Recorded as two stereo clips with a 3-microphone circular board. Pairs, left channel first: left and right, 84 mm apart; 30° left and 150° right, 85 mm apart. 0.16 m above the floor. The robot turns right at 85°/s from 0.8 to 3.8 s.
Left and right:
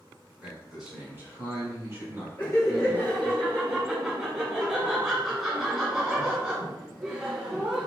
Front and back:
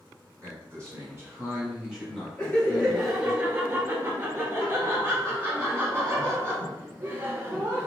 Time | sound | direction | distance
0.4 | a man speaking | 170° right | 1.7 m
2.4 | laughter | 65° left | 1.4 m